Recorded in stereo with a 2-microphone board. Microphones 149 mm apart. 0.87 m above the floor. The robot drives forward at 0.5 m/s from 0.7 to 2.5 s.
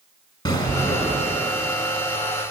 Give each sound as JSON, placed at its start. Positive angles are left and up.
{"t": 0.5, "sound": "an explosion", "side_deg": 30, "distance_m": 1.4}